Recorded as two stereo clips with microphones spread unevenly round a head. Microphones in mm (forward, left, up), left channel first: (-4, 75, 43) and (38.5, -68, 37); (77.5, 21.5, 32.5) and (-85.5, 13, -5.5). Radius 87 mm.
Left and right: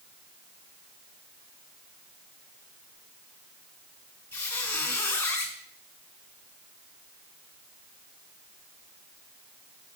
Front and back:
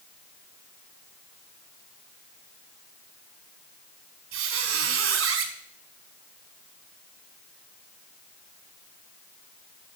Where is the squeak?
Straight behind, 2 m.